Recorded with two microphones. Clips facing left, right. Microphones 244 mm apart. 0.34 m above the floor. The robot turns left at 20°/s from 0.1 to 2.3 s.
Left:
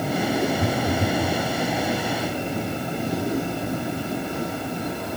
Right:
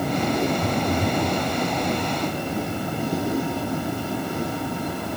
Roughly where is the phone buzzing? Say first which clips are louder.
Even; left.